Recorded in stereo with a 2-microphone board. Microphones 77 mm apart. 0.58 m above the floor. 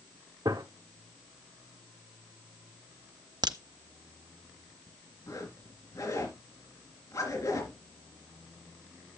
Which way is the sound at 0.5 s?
75° right (ahead or behind).